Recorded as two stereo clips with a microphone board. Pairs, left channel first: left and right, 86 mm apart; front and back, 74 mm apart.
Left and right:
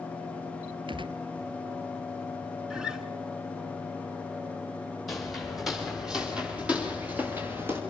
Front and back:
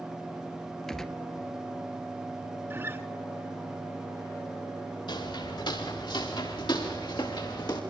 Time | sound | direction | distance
0.9 | a gunshot | 85° right | 0.9 m
2.7 | a guitar | 165° right | 1.6 m
5.1 | footsteps | straight ahead | 8.5 m